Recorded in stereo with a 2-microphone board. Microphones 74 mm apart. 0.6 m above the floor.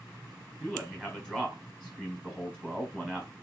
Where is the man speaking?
10° left (ahead or behind), 4 m.